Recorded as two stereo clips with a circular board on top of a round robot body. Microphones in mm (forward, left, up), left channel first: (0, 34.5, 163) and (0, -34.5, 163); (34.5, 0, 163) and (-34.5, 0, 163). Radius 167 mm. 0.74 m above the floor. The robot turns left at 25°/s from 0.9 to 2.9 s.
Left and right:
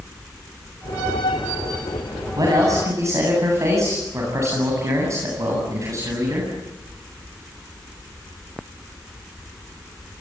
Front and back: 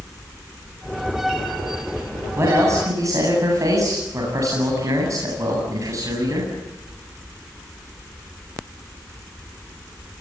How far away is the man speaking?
About 8.5 m.